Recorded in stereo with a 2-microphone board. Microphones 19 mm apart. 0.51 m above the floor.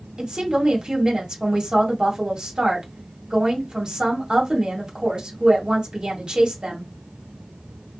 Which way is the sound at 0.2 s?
40° right (ahead or behind).